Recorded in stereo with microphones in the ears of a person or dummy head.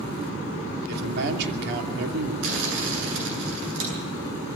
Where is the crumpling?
70° right (ahead or behind), 8 m.